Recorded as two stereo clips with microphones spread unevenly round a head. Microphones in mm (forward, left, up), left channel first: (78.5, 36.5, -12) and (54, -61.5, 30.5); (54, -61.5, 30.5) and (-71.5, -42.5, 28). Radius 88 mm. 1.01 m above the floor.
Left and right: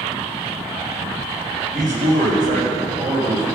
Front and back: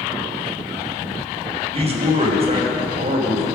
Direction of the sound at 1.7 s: 150° right.